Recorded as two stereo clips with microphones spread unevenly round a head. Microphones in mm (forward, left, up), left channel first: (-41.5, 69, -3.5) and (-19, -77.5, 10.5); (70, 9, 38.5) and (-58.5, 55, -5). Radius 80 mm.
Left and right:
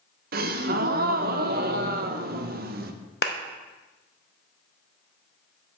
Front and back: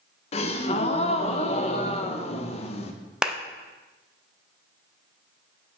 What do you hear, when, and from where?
0.3 s a gasp: 75° right, 0.5 m
3.2 s a clap: 80° left, 0.7 m